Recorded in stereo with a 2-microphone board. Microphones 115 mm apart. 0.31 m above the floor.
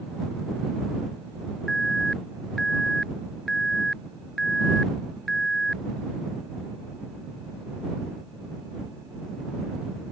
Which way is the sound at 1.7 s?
5° left (ahead or behind).